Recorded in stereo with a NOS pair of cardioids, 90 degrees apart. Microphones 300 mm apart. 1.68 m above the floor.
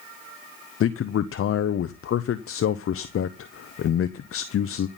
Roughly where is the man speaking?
Ahead left.